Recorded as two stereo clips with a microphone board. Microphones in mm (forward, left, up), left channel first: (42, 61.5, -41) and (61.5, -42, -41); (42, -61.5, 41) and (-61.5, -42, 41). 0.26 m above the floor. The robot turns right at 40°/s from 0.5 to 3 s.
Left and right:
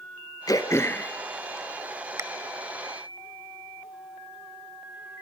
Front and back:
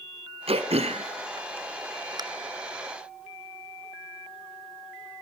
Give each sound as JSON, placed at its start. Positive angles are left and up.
{"t": 0.5, "sound": "throat clearing", "azimuth_deg": 150, "distance_m": 1.4}